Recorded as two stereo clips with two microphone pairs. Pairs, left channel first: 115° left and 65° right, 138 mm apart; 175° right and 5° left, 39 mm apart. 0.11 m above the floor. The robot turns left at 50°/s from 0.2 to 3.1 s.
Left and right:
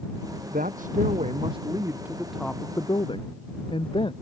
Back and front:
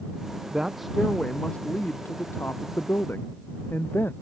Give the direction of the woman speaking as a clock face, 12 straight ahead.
2 o'clock.